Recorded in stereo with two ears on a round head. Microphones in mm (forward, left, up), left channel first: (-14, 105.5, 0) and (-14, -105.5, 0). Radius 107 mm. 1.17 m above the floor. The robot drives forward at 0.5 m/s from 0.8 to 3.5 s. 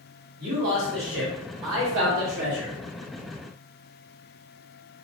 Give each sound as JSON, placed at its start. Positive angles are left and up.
{"t": 0.4, "sound": "a man speaking", "side_deg": -40, "distance_m": 1.3}